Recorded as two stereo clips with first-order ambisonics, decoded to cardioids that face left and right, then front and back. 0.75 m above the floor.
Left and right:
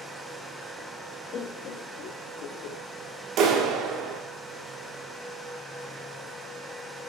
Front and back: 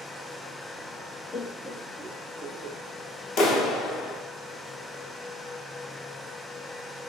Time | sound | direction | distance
1.3 | laughter | 45° left | 0.6 m
3.4 | a clap | 45° right | 1.5 m